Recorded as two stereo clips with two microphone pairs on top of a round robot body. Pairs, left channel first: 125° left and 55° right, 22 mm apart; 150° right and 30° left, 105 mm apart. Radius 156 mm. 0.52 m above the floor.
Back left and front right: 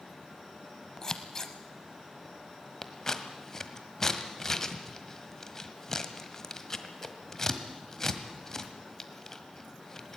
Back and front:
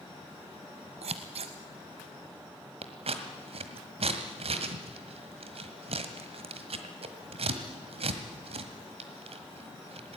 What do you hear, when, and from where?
1.0 s scissors: 60° left, 0.6 m
2.8 s scissors: 60° left, 1.5 m